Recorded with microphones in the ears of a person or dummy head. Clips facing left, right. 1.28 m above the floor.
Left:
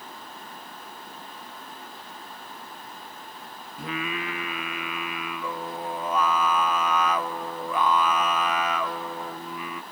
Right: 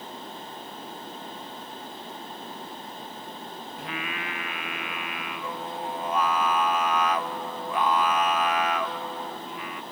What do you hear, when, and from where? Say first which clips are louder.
3.8 s singing: left 5 dB; 70° left (ahead or behind), 0.7 m